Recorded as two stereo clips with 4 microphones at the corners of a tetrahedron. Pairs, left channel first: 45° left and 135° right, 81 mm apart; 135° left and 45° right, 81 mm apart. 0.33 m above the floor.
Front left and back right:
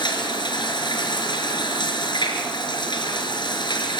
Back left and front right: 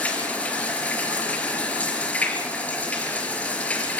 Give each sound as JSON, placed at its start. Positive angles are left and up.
{"t": 0.0, "sound": "running water", "azimuth_deg": 65, "distance_m": 5.0}